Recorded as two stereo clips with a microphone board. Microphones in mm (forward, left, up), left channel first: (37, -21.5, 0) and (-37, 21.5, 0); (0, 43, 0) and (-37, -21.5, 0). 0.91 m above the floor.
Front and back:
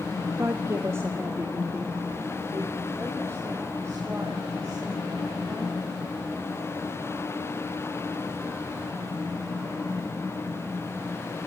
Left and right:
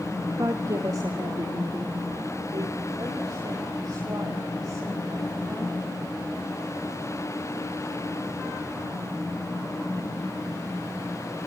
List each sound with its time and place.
0.4 s a woman speaking: 160° right, 1.6 m; by 5.8 s 150° right, 8.5 m